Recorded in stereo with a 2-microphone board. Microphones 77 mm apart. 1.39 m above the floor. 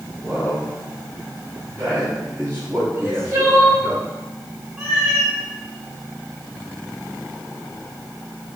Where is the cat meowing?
20° right (ahead or behind), 2.5 m.